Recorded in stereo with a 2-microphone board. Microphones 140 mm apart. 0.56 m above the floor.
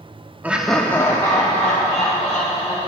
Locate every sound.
0.4 s laughter: 10° right (ahead or behind), 0.7 m; by 2.8 s 30° left (ahead or behind), 2.5 m